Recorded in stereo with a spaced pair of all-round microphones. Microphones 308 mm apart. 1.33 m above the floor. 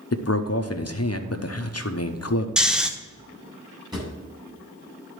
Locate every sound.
0.1 s a man speaking: 50° left (ahead or behind), 0.8 m
2.6 s snoring: centre (ahead or behind), 0.7 m
3.9 s a drawer: 15° right (ahead or behind), 2.5 m